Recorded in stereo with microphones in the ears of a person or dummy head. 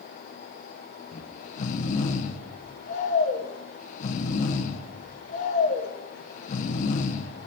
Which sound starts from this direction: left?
Snoring, at 1.1 s.